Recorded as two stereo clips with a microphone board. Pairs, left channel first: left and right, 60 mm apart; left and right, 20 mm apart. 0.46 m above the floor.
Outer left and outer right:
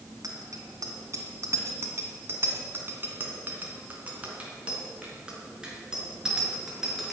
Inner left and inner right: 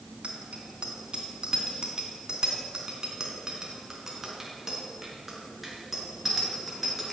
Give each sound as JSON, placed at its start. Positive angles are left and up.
{"t": 0.2, "sound": "a bicycle bell", "side_deg": -60, "distance_m": 3.0}